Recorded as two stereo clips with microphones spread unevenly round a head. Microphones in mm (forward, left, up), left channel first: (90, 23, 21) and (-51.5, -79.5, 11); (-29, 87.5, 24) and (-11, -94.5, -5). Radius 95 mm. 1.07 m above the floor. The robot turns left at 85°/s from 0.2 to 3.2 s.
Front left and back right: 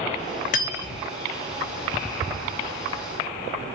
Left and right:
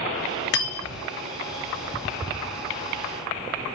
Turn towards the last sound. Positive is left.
turn(degrees=-140)